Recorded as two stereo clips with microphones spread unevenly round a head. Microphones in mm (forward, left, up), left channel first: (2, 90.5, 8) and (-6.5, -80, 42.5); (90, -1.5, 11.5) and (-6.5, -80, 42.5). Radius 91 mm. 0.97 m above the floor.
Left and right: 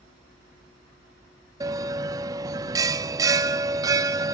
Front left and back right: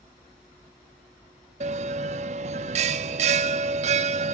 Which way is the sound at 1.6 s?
155° right.